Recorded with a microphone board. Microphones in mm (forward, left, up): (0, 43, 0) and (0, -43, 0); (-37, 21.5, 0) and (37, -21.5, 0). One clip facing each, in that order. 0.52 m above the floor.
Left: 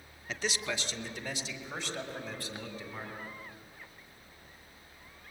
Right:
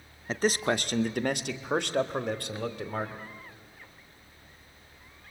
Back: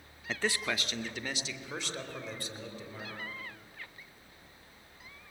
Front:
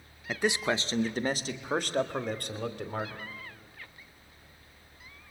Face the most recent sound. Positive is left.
turn(degrees=-65)